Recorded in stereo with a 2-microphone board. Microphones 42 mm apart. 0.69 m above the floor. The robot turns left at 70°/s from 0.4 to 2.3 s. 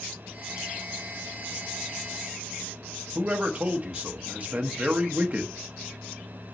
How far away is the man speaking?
About 0.9 m.